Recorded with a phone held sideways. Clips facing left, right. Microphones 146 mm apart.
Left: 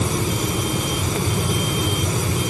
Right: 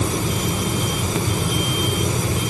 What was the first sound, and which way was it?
Only background noise.